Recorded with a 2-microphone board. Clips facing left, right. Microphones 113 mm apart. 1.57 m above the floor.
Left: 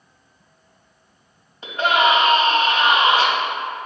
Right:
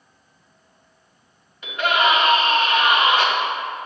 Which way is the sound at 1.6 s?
30° left (ahead or behind).